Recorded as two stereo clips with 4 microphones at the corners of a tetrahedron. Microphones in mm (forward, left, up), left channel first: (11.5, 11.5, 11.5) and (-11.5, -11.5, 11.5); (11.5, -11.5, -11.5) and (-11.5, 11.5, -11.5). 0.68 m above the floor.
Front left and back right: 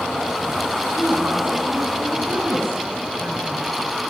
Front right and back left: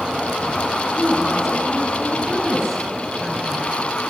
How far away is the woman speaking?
About 7 m.